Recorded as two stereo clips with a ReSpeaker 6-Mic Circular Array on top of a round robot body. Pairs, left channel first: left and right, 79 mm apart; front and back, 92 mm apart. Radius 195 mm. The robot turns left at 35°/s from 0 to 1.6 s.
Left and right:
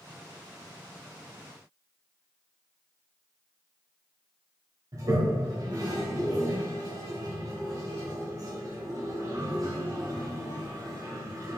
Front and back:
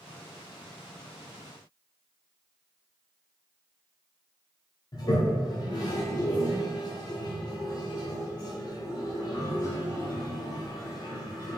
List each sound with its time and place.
4.9 s a toilet flushing: 45° right, 0.6 m